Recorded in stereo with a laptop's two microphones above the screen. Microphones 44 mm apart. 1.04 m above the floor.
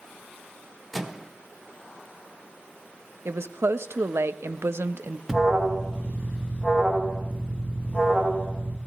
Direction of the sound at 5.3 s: 5° right (ahead or behind).